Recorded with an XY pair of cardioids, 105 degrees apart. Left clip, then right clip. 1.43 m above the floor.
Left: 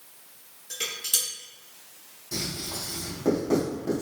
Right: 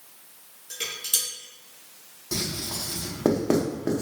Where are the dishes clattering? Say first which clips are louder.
Even; 5° right, 1.6 m.